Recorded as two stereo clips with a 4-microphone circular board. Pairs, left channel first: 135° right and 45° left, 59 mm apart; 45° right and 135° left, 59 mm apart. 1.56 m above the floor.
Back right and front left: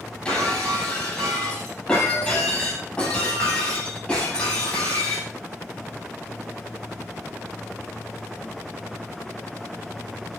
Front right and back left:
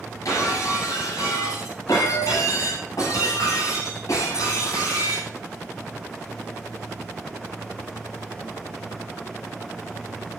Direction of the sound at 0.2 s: 60° right.